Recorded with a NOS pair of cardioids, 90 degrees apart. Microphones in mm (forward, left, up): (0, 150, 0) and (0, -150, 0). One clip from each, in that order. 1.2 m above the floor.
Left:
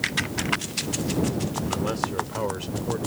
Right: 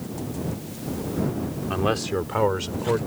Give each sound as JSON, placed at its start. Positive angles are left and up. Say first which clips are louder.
{"t": 1.7, "sound": "a man speaking", "louder": "right 4 dB", "azimuth_deg": -55}